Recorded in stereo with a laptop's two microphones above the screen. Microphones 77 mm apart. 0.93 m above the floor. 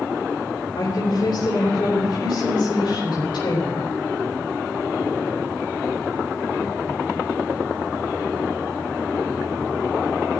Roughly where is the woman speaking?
Left.